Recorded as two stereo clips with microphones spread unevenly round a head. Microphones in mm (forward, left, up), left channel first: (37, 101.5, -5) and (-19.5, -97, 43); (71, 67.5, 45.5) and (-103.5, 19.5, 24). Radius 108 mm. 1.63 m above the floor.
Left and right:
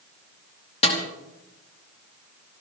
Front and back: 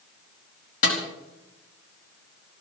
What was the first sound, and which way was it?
A snare drum, 10° left.